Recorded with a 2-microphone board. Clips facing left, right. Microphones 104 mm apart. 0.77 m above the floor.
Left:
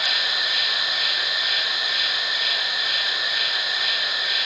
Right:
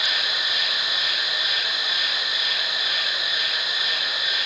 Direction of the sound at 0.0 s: 55° left (ahead or behind).